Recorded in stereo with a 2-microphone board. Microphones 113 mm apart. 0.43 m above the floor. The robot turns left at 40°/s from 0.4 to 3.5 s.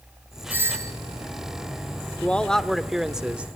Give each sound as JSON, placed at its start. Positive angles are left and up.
{"t": 0.5, "sound": "a doorbell", "side_deg": -15, "distance_m": 2.5}
{"t": 2.2, "sound": "a man speaking", "side_deg": 10, "distance_m": 1.0}